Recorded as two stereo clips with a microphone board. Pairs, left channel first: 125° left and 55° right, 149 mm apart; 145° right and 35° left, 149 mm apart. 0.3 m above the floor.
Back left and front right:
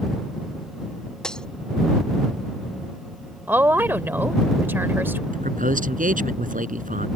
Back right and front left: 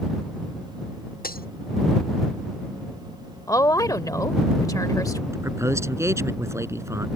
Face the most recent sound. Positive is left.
turn(degrees=-35)